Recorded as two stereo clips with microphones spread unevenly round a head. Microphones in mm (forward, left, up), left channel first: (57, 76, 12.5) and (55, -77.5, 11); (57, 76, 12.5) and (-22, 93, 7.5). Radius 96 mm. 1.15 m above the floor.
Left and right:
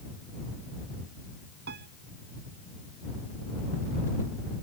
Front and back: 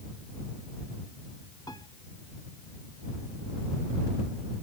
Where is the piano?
80° right.